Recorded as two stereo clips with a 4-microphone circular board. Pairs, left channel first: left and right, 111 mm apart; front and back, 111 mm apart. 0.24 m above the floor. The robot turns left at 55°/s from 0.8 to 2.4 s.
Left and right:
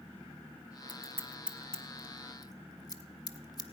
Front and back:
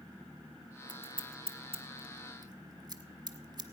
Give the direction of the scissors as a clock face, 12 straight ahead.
5 o'clock.